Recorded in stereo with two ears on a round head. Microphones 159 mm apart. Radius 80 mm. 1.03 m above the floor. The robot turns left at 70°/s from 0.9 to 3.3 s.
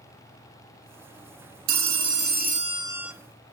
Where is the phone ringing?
75° right, 0.7 m; by 3.1 s 175° right, 0.7 m.